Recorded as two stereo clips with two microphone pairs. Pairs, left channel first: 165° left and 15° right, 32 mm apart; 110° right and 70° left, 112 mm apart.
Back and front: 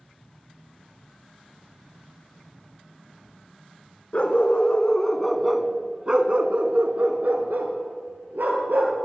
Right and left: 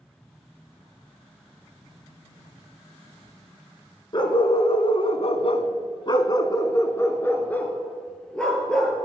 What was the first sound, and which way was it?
A dog barking, 150° right.